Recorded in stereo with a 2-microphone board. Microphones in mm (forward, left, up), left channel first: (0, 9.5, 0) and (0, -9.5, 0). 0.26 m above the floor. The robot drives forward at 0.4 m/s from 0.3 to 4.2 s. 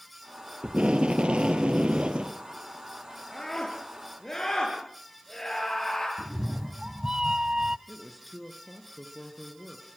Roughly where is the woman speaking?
Centre.